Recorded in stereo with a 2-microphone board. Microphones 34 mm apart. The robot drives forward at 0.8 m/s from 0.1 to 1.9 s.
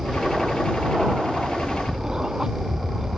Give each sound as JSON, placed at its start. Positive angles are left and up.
{"t": 0.0, "sound": "an aircraft", "side_deg": -20}